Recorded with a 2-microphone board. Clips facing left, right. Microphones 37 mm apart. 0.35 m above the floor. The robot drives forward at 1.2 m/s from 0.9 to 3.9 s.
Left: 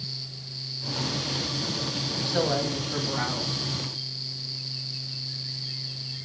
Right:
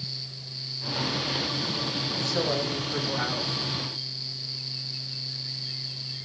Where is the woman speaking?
35° left (ahead or behind), 2.0 m; by 3.6 s 20° left (ahead or behind), 3.5 m.